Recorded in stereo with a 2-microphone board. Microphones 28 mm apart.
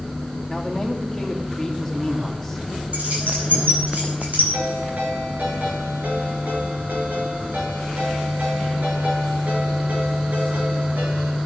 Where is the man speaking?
10° left (ahead or behind), 3 m.